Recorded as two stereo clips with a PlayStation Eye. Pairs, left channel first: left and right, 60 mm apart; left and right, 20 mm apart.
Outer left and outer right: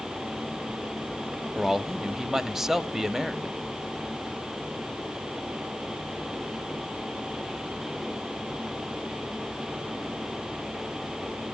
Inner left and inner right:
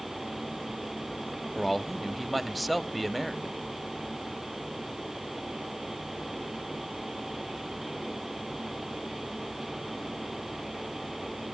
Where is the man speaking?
5° right (ahead or behind), 0.9 m.